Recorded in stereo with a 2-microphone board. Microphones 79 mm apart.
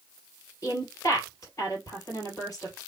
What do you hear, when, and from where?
0.6 s a woman speaking: 45° left (ahead or behind), 2.5 m